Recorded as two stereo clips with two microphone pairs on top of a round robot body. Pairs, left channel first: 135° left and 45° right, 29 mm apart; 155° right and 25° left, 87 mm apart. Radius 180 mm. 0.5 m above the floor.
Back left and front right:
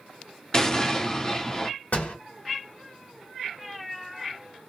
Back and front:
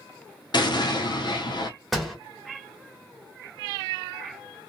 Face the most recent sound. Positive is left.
turn(degrees=115)